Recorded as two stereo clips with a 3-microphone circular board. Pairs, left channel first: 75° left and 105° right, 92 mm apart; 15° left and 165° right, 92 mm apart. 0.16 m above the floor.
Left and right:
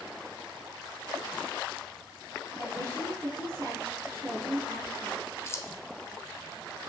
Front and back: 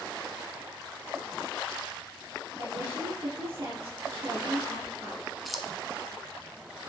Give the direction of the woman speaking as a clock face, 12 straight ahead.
6 o'clock.